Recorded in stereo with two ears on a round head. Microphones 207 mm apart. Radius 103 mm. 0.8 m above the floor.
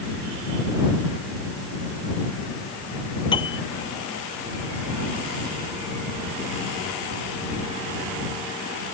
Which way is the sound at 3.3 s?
20° left (ahead or behind).